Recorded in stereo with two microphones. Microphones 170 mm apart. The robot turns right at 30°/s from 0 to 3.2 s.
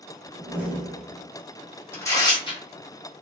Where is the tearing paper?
15° left (ahead or behind), 0.9 m; by 2.6 s 35° left (ahead or behind), 0.9 m.